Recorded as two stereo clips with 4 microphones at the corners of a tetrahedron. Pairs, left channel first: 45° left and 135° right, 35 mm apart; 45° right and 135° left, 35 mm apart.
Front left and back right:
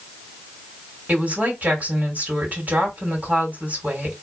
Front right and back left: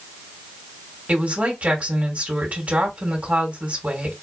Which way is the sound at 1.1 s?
175° right.